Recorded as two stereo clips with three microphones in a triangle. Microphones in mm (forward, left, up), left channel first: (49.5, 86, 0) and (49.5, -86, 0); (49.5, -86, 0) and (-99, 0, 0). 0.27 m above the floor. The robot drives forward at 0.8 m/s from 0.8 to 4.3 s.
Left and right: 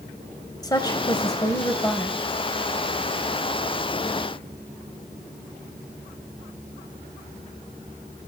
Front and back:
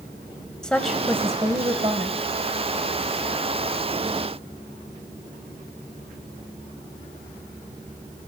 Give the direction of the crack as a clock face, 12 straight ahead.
I don't hear a crack.